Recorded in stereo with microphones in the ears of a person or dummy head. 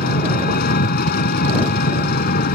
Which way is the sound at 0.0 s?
45° left (ahead or behind).